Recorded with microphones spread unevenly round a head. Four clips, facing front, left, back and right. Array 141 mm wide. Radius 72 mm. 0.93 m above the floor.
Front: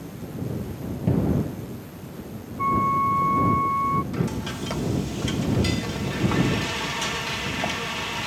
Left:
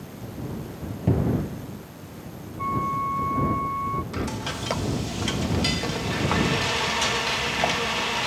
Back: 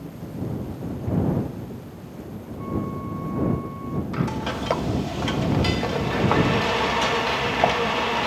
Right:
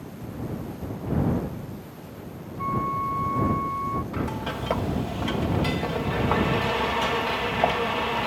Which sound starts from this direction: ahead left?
A cupboard door, at 1.1 s.